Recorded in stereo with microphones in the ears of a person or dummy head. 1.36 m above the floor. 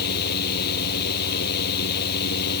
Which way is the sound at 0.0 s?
55° left (ahead or behind).